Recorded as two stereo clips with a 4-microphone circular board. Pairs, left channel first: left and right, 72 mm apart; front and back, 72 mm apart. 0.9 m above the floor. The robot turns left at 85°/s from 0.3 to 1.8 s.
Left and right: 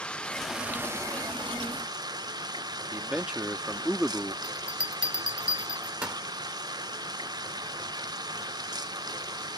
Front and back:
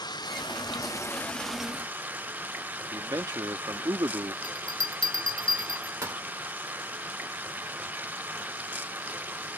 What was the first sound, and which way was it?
Running water, 15° left.